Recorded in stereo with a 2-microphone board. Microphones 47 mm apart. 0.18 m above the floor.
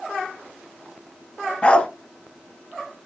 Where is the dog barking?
25° left (ahead or behind), 1.0 m.